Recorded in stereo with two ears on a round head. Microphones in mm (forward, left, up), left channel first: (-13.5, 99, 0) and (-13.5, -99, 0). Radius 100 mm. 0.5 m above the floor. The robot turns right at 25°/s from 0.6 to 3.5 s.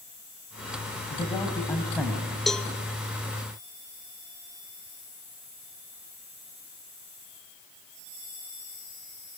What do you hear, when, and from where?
1.1 s a man speaking: 155° left, 4 m; by 2.4 s 175° right, 4 m
2.5 s a cowbell: centre (ahead or behind), 0.9 m; by 2.7 s 5° left (ahead or behind), 0.9 m